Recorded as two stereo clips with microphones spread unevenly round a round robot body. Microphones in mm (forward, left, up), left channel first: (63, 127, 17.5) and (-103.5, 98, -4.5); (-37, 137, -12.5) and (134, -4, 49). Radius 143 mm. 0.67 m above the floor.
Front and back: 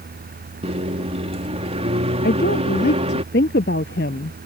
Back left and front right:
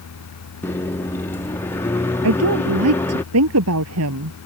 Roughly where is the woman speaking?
Ahead right.